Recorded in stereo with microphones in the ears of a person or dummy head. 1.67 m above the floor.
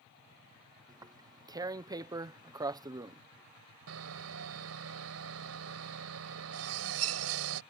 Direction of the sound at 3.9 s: 65° right (ahead or behind).